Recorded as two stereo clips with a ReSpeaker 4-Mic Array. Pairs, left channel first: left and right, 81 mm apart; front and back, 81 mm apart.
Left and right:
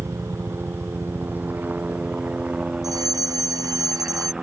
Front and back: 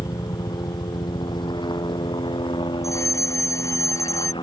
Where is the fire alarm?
50° right.